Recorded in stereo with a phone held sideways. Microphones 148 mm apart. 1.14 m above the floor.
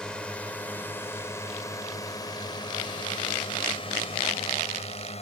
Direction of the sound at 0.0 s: 5° left (ahead or behind).